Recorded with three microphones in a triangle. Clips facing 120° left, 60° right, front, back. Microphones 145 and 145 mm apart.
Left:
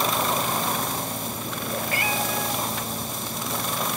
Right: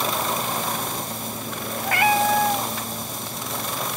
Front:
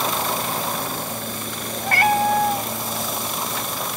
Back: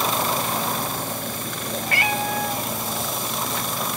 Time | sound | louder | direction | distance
1.9 | a cat meowing | right 12 dB, front 8 dB | 40° right | 0.7 m